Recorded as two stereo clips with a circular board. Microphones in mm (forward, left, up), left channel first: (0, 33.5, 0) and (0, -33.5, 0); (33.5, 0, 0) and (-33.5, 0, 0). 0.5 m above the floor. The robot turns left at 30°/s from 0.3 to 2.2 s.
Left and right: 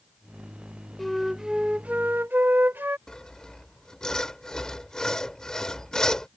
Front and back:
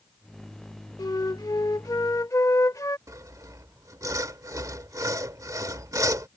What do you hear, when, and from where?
1.0 s a flute: 5° left; by 3.0 s 35° right
3.1 s sawing: 170° left